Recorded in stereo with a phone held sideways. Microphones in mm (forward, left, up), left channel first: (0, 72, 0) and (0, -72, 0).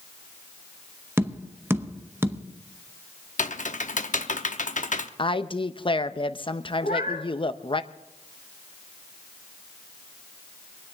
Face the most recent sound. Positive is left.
turn(degrees=75)  # may be behind; listen again after turning